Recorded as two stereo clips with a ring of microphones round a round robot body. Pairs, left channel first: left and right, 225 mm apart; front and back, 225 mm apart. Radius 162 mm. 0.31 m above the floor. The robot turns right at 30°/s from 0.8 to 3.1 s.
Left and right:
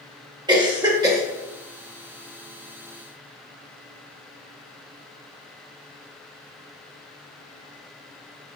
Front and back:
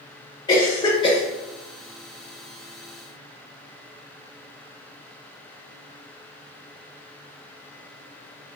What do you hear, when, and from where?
0.5 s a cough: 45° right, 0.9 m; by 1.2 s 30° right, 0.9 m